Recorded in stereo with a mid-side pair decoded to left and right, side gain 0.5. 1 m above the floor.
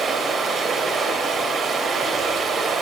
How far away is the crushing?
I don't hear crushing.